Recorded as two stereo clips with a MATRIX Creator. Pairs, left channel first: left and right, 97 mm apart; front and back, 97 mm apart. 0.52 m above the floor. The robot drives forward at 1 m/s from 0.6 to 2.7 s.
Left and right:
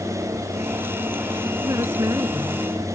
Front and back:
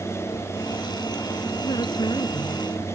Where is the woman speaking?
35° right; by 2.9 s 40° right.